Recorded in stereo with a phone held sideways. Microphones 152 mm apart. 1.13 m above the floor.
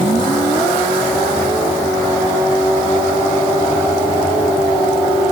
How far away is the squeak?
No squeak in this recording.